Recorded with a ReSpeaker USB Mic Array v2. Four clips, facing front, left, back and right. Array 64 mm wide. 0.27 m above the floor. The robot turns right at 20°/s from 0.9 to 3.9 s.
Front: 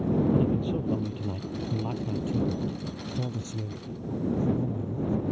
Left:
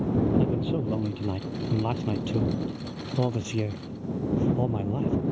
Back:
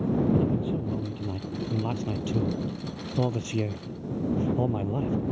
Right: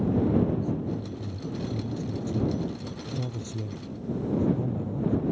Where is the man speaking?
85° left; by 5.2 s 145° left.